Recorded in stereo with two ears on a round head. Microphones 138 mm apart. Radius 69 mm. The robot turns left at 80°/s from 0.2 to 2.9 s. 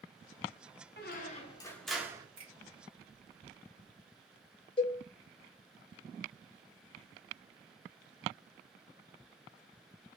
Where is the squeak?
75° left, 0.6 m; by 2.3 s 30° right, 0.6 m.